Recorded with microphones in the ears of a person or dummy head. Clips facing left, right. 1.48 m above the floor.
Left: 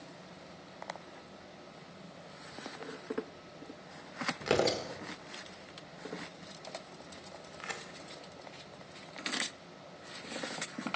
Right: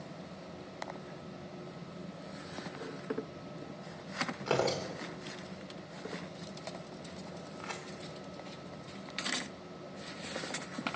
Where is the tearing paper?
20° left (ahead or behind), 1.1 m.